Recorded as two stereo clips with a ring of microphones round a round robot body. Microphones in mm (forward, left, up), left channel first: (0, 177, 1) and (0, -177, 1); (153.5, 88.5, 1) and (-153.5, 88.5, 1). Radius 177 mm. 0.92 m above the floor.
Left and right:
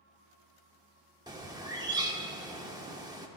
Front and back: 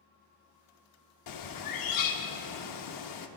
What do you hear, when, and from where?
1.3 s a bird: 10° right, 0.8 m